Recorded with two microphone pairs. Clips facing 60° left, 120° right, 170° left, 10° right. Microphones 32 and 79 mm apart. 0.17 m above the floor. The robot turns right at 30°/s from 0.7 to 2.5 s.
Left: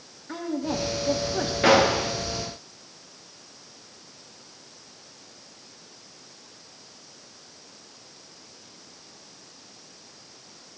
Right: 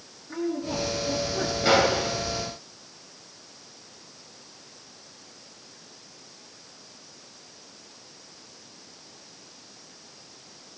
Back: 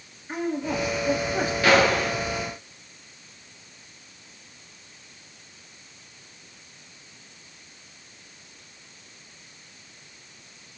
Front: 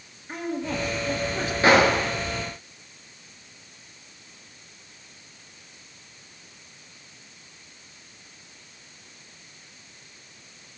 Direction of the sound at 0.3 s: 85° left.